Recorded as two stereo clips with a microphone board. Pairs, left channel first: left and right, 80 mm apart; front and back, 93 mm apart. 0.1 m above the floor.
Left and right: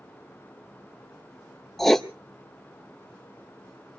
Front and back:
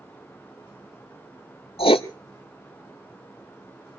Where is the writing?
5° left, 0.6 m.